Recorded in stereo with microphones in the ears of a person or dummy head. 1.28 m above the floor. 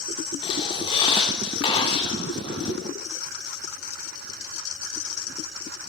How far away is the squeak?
About 1.8 m.